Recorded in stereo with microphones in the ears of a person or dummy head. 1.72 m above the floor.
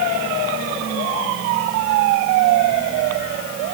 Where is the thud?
No thud in this recording.